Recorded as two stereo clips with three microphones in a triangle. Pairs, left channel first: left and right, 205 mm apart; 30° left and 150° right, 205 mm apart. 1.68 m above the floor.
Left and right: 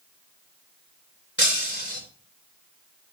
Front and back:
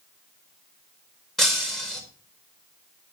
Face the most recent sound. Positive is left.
turn(degrees=120)